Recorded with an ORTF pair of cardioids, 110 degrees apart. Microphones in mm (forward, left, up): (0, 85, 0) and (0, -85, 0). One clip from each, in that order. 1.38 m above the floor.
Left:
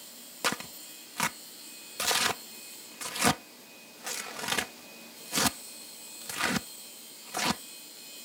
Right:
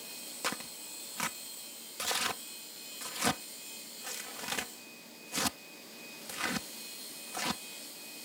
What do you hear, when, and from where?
0.4 s tearing paper: 35° left